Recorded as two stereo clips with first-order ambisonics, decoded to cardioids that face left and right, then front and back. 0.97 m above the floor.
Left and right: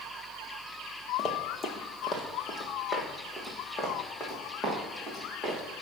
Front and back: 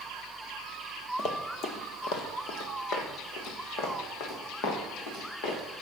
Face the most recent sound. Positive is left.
turn(degrees=5)